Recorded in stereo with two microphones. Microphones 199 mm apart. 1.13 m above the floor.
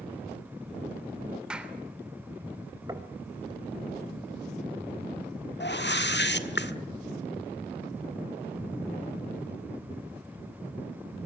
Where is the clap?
5° right (ahead or behind), 3 m.